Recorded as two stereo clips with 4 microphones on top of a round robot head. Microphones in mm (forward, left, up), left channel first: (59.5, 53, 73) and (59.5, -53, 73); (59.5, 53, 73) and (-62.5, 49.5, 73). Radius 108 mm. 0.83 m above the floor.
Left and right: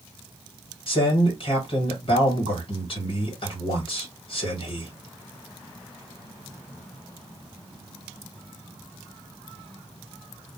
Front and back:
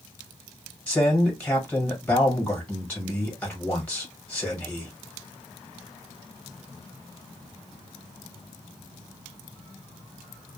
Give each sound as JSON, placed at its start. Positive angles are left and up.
{"t": 0.9, "sound": "a man speaking", "azimuth_deg": 80, "distance_m": 1.4}